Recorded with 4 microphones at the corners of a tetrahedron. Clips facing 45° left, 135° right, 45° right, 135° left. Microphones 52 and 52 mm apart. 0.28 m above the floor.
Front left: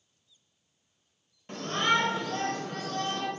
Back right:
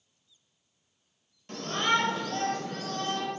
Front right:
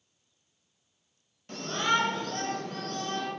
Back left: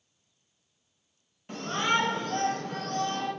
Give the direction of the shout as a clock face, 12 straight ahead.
9 o'clock.